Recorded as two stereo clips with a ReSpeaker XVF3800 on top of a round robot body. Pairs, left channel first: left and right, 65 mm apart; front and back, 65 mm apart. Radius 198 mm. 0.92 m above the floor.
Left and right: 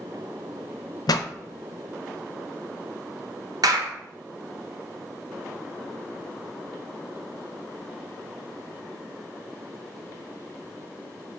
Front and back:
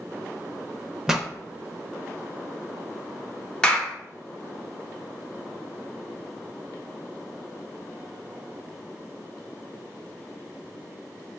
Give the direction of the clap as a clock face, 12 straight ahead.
3 o'clock.